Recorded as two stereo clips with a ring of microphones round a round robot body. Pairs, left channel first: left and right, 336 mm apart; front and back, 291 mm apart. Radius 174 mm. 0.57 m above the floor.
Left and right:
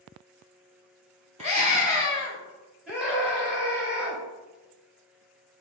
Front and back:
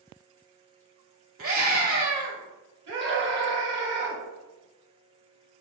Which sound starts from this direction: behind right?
A scream, at 1.4 s.